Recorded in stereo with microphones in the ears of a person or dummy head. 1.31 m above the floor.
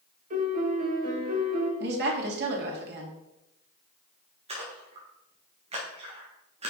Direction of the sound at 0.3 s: 40° right (ahead or behind).